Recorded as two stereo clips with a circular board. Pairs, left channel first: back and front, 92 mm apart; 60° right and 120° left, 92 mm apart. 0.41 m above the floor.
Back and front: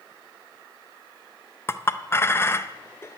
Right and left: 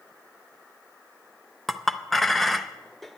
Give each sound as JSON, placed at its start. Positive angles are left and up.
{"t": 1.7, "sound": "a clink", "azimuth_deg": -150, "distance_m": 0.5}